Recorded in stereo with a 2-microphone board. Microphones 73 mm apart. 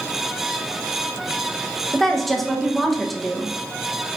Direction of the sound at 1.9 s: Centre (ahead or behind).